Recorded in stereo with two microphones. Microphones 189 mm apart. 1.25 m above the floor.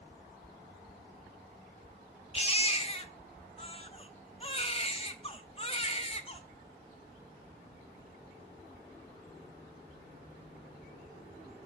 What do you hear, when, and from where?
2.3 s a baby crying: 30° left (ahead or behind), 0.8 m